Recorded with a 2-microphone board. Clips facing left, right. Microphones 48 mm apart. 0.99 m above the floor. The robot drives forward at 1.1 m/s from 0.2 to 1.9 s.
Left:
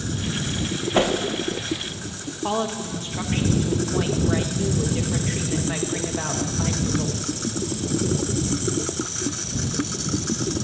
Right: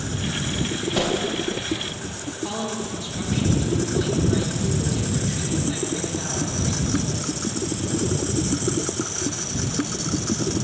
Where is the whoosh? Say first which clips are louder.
Left 4 dB; 30° left (ahead or behind), 0.6 m; by 1.1 s 25° left (ahead or behind), 0.7 m.